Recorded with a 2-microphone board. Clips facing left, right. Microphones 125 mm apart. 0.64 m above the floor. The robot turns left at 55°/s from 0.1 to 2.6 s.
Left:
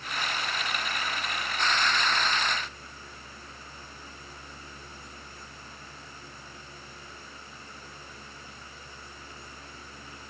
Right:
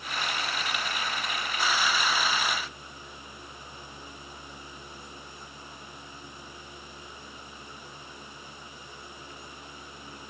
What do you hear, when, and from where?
Only background noise.